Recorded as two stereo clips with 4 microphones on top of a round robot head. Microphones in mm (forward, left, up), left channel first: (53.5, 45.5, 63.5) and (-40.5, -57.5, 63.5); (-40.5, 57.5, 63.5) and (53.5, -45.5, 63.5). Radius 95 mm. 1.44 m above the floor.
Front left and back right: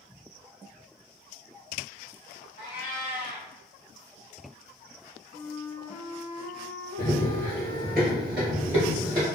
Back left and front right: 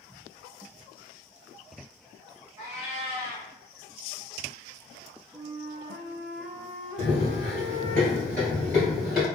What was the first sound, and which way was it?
A cat meowing, 10° left.